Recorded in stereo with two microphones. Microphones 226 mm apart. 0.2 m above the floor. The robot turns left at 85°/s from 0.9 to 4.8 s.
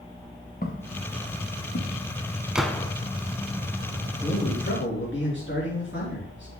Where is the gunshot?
175° right, 0.5 m; by 2.9 s 155° left, 0.5 m.